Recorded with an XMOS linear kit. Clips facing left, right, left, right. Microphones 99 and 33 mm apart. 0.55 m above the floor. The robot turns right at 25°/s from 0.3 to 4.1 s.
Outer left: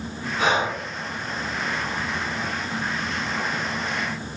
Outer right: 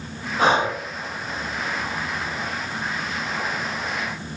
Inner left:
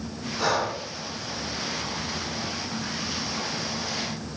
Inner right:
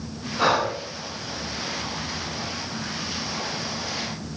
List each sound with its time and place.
0.4 s breathing: 40° right (ahead or behind), 0.7 m; by 0.8 s 30° right (ahead or behind), 0.7 m